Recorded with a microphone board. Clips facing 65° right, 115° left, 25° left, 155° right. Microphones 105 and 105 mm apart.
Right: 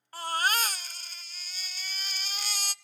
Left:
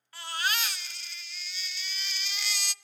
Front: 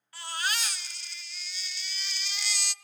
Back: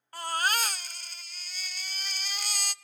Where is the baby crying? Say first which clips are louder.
Right 4 dB, back 5 dB; 115° right, 0.5 m.